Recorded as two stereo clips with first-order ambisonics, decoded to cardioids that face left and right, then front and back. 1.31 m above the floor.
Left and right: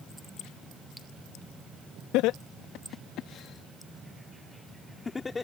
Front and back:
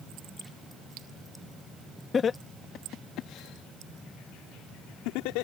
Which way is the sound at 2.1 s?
70° left.